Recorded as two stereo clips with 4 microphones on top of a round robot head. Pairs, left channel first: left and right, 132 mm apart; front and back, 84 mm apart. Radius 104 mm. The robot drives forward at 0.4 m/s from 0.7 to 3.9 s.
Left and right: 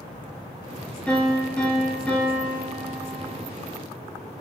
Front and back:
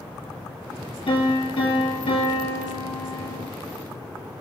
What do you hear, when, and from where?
1.1 s a piano: 10° left, 4 m